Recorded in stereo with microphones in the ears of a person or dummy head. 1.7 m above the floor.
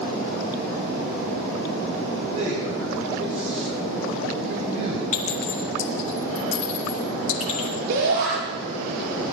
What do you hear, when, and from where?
2.3 s a man speaking: 35° right (ahead or behind), 5.5 m
5.1 s a clink: 45° left (ahead or behind), 2.5 m
7.9 s a shout: 65° right (ahead or behind), 5 m